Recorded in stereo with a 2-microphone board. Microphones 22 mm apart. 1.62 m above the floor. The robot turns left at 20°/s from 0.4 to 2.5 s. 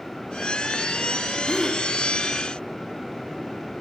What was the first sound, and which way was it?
A gasp, centre (ahead or behind).